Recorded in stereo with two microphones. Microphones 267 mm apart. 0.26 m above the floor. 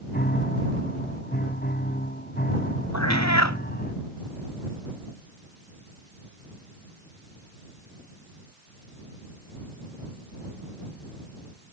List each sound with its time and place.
0.1 s a piano: 35° left (ahead or behind)
2.9 s a cat meowing: 90° left